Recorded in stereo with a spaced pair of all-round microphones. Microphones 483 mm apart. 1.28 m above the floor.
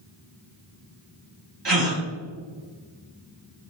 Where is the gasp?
55° right (ahead or behind), 2.5 m.